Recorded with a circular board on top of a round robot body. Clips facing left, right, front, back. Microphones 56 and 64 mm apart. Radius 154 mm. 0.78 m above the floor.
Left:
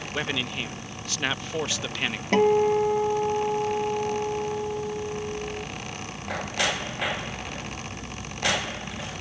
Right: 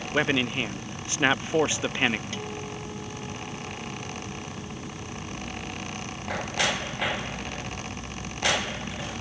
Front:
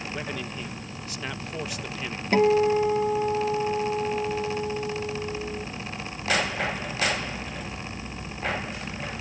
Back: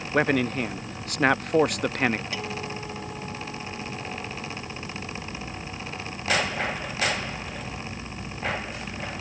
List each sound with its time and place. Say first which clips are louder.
0.1 s a man speaking: right 5 dB, back 15 dB; 155° right
2.3 s a guitar: left 16 dB, front 13 dB; 50° left